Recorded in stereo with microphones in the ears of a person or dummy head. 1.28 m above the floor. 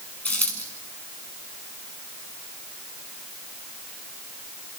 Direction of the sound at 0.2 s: 5° left (ahead or behind).